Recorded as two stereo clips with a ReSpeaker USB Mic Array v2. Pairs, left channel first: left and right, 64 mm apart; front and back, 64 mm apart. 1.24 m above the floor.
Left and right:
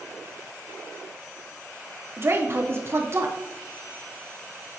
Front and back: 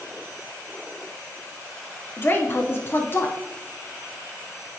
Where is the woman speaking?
50° right, 0.8 m.